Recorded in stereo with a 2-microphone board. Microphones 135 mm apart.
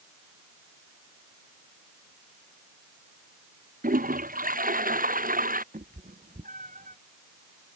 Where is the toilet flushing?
80° right.